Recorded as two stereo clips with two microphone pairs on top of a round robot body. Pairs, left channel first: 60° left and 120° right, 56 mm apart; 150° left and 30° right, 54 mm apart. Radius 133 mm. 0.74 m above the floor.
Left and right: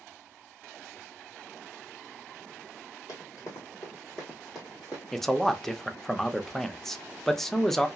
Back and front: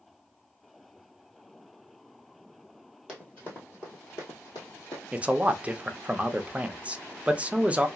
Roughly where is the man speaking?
Ahead right.